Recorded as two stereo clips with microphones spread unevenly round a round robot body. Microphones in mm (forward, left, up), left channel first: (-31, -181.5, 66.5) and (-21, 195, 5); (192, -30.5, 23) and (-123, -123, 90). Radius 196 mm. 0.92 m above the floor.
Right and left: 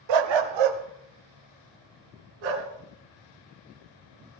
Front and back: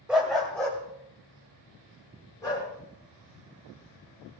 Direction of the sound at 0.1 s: 110° left.